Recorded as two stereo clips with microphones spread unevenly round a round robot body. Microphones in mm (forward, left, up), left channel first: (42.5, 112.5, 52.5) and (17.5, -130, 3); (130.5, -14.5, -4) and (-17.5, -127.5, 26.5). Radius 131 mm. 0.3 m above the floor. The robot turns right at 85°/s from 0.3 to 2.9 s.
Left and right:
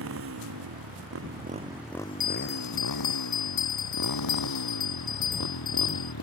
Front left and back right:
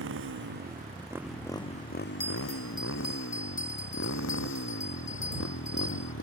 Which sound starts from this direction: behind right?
A motorcycle, at 0.0 s.